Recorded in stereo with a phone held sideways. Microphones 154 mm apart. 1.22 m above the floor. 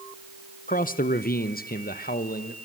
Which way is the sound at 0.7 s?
60° left (ahead or behind).